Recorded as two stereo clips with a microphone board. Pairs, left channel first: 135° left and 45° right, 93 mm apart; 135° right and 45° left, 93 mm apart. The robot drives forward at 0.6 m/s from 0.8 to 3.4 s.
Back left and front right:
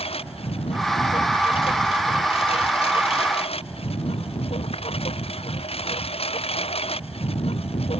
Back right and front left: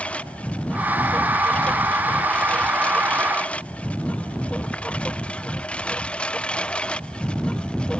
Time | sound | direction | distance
0.0 | a lawn mower | 145° left | ?